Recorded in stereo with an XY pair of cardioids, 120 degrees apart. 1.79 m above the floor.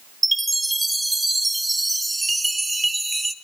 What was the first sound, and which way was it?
A chime, 10° right.